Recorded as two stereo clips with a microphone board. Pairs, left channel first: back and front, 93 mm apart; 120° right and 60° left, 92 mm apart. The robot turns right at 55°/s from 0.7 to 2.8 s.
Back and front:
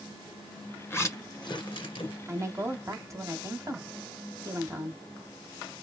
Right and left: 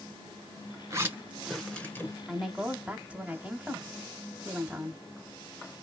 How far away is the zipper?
About 1.2 m.